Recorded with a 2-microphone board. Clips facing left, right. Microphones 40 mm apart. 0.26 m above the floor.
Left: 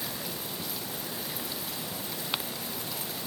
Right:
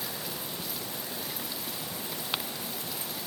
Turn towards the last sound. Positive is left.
No sound to turn to.